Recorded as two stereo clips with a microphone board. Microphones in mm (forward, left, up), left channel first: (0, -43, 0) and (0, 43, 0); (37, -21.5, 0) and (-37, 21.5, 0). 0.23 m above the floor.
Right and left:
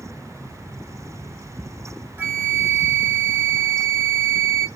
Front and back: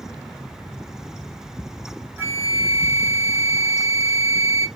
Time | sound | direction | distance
2.2 | a flute | 120° left | 0.5 m